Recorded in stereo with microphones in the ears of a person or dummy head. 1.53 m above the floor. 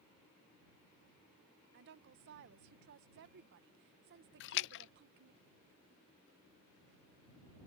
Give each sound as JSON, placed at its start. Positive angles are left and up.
{"t": 1.7, "sound": "a woman speaking", "side_deg": -50}
{"t": 4.4, "sound": "a splash", "side_deg": 60}